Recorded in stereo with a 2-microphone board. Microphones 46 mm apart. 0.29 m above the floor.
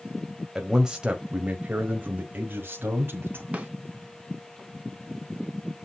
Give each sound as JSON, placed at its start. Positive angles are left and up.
{"t": 0.6, "sound": "a man speaking", "side_deg": -5, "distance_m": 1.5}
{"t": 3.5, "sound": "a snare drum", "side_deg": -30, "distance_m": 2.5}